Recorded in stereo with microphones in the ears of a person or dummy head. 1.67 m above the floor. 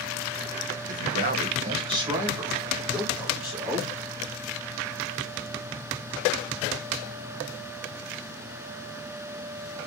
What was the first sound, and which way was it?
A man speaking, 60° right (ahead or behind).